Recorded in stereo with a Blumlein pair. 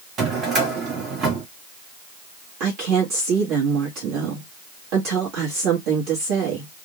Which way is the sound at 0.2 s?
25° right.